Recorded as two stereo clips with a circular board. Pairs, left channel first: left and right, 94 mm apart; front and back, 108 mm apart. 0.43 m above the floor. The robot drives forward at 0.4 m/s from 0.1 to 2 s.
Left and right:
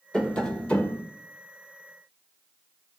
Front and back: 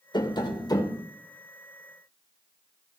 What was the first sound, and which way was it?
Tapping, 15° left.